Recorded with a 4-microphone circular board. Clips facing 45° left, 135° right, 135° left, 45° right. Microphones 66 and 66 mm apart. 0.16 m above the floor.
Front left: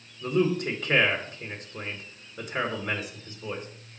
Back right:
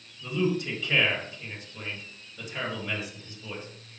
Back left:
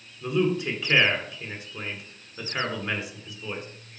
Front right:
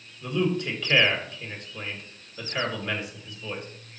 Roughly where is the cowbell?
I don't hear a cowbell.